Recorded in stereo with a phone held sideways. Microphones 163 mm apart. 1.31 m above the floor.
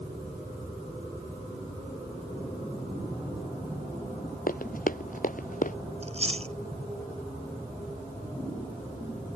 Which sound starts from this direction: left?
Running footsteps, at 4.5 s.